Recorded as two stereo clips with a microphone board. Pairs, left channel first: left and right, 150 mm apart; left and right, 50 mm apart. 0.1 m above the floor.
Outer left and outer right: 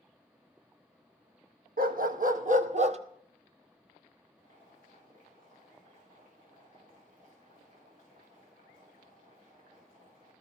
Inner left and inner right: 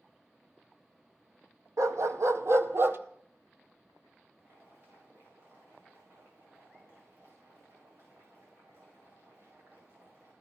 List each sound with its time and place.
1.8 s a dog barking: 75° right (ahead or behind), 1.1 m; by 3.0 s 45° right (ahead or behind), 0.7 m
4.4 s boiling: 65° right (ahead or behind), 9.5 m